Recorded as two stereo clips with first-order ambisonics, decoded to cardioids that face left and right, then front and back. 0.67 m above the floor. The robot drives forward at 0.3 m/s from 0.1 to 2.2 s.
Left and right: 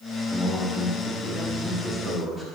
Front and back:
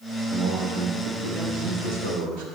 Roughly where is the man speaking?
Behind.